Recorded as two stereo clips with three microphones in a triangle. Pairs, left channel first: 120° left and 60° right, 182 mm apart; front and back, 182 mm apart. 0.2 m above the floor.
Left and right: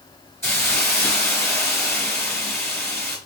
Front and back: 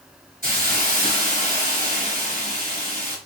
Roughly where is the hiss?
Behind.